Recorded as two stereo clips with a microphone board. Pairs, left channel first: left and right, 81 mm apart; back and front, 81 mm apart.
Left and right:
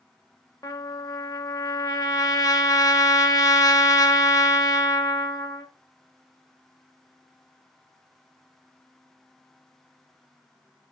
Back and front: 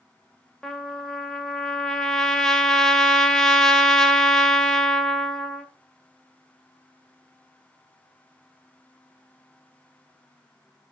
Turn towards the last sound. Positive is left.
turn(degrees=95)